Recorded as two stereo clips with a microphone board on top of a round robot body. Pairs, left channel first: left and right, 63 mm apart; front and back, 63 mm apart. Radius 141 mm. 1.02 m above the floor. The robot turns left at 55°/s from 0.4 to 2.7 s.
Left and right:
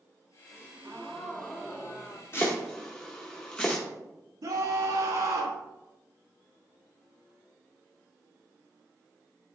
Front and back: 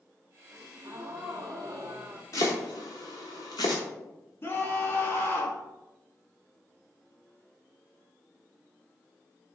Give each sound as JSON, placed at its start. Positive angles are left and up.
{"t": 0.5, "sound": "a gasp", "azimuth_deg": -145, "distance_m": 0.9}
{"t": 2.3, "sound": "chopping", "azimuth_deg": 35, "distance_m": 0.8}
{"t": 4.4, "sound": "a scream", "azimuth_deg": -55, "distance_m": 2.0}